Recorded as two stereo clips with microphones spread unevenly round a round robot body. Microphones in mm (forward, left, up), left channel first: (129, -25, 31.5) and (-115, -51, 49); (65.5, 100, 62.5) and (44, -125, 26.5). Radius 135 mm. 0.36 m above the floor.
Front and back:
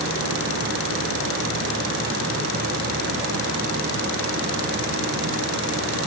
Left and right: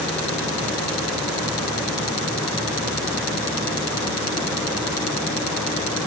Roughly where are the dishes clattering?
No dishes clattering in this recording.